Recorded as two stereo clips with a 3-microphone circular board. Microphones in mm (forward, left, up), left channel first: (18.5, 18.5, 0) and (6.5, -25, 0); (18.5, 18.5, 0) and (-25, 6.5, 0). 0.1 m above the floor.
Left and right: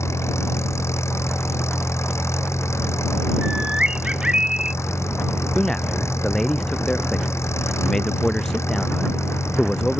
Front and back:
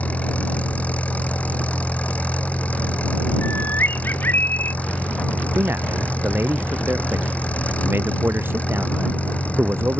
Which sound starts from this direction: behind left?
A man speaking, at 5.5 s.